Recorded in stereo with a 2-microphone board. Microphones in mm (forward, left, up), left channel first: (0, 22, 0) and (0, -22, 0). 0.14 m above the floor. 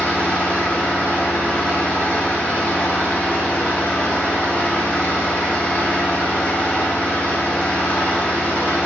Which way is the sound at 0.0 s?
35° left (ahead or behind).